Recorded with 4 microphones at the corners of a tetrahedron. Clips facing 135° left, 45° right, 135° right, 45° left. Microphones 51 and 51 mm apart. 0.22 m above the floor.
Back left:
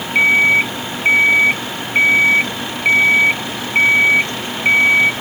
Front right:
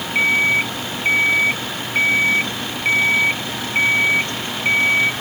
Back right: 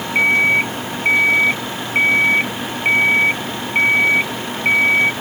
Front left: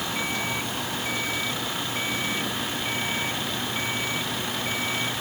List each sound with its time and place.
0.1 s an alarm clock: 160° right